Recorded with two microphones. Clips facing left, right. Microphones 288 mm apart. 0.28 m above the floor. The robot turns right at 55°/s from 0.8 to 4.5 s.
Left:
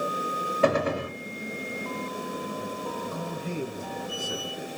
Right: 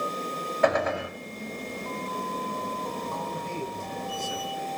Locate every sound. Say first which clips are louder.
0.6 s a gunshot: left 1 dB; 35° left (ahead or behind), 1.3 m; by 1.2 s 45° left (ahead or behind), 1.3 m
3.1 s a man speaking: left 2 dB; 20° left, 3 m; by 4.7 s 100° left, 3 m